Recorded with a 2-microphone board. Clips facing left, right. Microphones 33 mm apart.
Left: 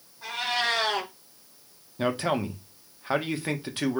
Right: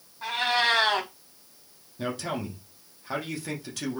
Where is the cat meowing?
35° right (ahead or behind), 1.8 m.